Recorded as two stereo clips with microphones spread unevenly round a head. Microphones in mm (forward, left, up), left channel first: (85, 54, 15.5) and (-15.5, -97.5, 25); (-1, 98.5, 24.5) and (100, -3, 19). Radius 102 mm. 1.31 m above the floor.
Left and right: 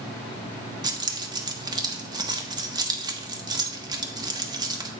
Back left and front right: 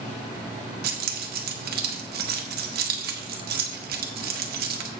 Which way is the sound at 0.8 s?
60° right.